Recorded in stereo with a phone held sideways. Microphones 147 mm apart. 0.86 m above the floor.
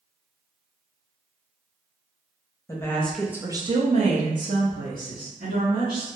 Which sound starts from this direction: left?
A woman speaking, at 2.7 s.